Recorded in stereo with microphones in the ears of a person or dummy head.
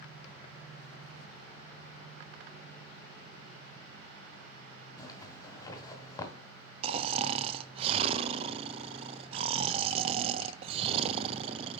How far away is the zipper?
About 1.5 m.